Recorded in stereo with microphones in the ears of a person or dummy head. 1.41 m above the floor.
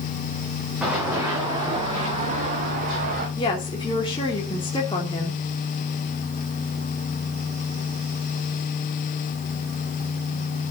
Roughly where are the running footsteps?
Centre.